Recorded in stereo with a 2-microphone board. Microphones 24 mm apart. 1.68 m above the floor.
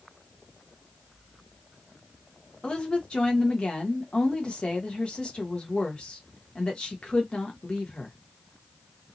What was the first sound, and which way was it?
A woman speaking, 35° left (ahead or behind).